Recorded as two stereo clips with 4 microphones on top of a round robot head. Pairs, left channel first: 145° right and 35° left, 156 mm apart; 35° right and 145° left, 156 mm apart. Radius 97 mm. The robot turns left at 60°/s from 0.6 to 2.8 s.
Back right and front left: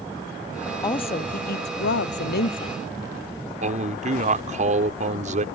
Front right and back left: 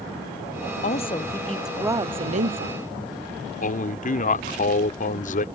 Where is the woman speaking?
80° right; by 2.8 s 165° left.